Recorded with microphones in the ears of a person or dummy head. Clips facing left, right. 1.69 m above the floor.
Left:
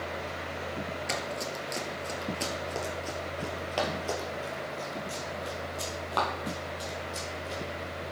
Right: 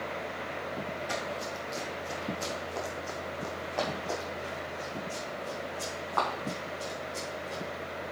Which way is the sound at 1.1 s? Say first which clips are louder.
Left 1 dB; 30° left (ahead or behind).